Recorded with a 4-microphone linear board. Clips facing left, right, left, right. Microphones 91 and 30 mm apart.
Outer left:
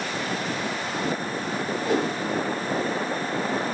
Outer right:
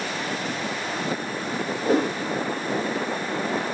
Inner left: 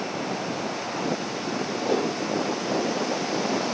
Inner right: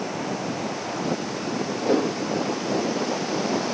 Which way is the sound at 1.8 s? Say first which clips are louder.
Outer right 3 dB, inner right 3 dB; 40° right (ahead or behind).